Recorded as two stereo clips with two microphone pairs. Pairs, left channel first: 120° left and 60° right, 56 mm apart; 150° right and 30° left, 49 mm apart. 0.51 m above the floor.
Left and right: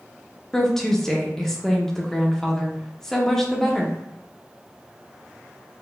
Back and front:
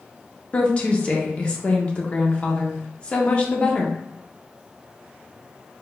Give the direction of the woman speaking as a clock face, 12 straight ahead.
6 o'clock.